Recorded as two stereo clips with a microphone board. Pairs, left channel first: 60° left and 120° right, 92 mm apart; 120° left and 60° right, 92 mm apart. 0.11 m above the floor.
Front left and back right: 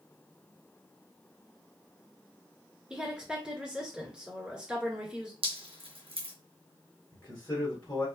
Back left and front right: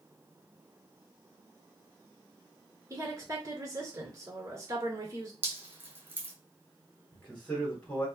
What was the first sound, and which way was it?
A woman speaking, 45° right.